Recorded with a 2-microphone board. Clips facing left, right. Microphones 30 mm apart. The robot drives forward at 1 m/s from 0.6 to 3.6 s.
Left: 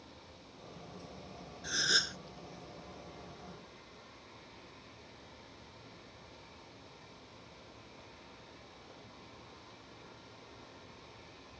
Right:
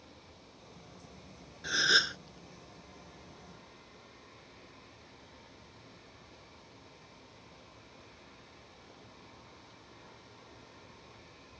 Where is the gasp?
20° right (ahead or behind); by 2.2 s 25° right (ahead or behind).